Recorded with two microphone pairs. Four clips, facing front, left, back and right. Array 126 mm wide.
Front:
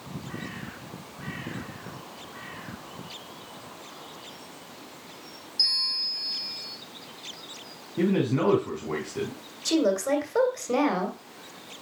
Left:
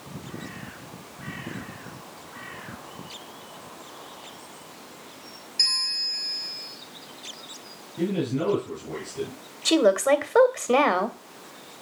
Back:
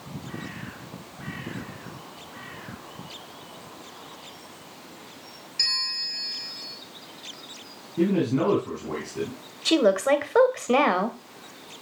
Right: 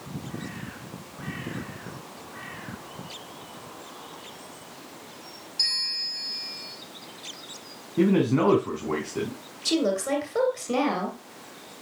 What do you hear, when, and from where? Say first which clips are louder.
5.6 s a bell: left 2 dB, back 6 dB; 150° left, 3 m
8.0 s a man speaking: right 5 dB, back 1 dB; 85° right, 4 m
9.7 s a woman speaking: left 6 dB, back 4 dB; 115° left, 2 m